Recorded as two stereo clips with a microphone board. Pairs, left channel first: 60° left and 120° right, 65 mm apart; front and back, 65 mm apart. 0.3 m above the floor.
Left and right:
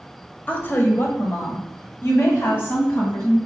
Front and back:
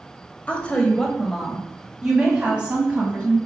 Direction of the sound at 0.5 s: 35° left.